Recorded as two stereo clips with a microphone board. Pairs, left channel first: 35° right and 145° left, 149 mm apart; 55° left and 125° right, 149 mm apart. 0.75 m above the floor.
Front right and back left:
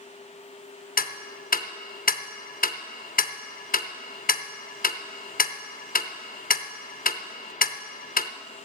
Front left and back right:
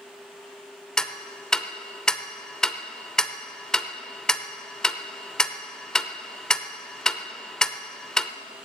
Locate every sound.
1.0 s ticking: 30° right, 0.6 m